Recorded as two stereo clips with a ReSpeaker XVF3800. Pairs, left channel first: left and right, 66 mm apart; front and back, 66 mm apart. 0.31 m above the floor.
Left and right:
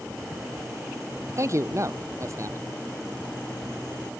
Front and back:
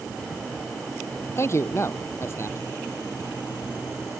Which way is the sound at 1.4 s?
50° right.